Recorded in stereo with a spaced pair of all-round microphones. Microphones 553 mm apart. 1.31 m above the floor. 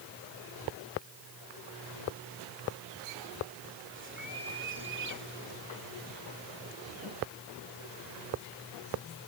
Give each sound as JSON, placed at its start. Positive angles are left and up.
{"t": 3.9, "sound": "a bird", "side_deg": -20}